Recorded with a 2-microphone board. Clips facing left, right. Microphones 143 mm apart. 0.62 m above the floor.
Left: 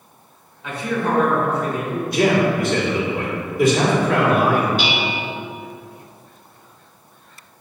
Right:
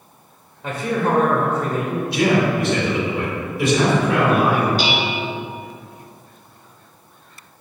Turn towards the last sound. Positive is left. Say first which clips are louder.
# right 1 dB
turn(degrees=-35)  # may be behind; listen again after turning